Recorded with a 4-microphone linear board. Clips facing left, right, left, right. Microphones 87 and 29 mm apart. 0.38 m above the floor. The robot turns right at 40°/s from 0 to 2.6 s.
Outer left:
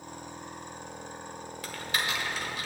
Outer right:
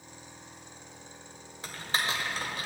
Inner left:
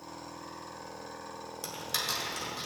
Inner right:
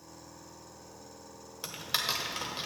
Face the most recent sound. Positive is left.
turn(degrees=-45)  # may be behind; listen again after turning